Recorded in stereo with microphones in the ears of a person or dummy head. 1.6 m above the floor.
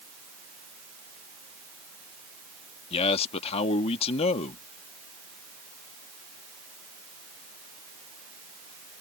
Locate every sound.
2.9 s a man speaking: 35° left (ahead or behind)